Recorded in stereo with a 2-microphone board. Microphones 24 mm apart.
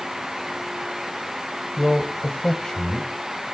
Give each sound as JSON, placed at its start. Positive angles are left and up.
{"t": 1.8, "sound": "a man speaking", "side_deg": 10, "distance_m": 1.4}